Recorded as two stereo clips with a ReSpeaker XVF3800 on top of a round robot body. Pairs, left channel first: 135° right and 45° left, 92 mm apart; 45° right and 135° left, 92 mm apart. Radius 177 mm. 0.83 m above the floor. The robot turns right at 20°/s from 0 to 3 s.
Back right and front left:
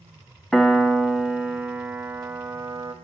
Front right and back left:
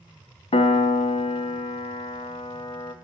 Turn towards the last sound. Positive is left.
turn(degrees=0)